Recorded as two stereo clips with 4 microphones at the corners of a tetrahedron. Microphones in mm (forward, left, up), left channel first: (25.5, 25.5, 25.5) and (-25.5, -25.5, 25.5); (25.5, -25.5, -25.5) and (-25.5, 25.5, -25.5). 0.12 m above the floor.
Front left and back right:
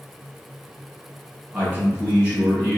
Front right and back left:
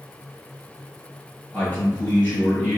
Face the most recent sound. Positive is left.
turn(degrees=-85)